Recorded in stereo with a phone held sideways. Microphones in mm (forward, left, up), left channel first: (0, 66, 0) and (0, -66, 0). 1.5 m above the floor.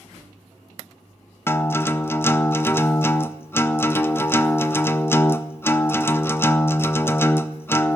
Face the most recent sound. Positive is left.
turn(degrees=20)  # may be behind; listen again after turning